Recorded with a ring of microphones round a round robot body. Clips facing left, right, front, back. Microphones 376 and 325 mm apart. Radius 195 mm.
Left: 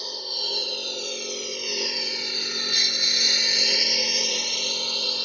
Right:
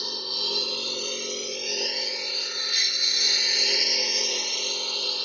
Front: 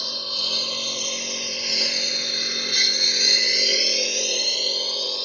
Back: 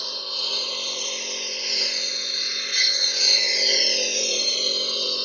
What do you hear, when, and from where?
0.0 s a lawn mower: 20° right; by 5.2 s 105° left